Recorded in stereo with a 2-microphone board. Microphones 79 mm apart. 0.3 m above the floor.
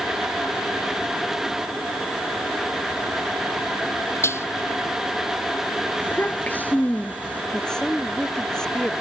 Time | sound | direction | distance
4.2 | dishes clattering | 35° left (ahead or behind) | ?
6.0 | a child speaking | 25° left (ahead or behind) | ?
7.5 | a woman speaking | 10° left (ahead or behind) | ?